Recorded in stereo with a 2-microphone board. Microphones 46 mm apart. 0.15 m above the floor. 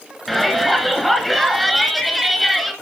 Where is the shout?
Centre (ahead or behind), 2.0 m.